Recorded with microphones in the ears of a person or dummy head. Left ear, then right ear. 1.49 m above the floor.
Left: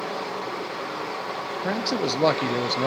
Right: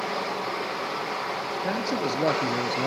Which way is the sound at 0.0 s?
10° right (ahead or behind).